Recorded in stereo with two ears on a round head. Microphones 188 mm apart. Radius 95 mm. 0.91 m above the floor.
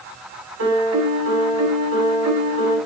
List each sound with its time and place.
0.6 s a piano: 85° right, 7 m